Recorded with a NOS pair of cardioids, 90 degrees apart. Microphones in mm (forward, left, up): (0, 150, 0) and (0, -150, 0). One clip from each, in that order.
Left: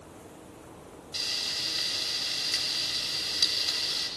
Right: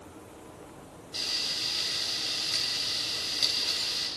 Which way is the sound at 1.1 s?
25° left.